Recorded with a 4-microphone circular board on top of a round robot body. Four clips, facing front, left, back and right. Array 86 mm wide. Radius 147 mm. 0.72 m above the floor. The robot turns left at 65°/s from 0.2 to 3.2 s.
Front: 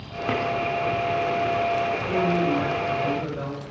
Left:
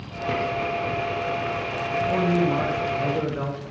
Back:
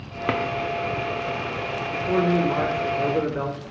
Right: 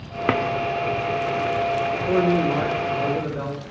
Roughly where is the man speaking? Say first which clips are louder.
Even, back 2 dB; right.